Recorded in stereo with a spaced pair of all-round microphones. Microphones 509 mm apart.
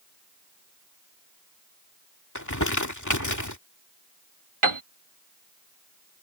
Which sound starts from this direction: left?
Crumpling, at 2.4 s.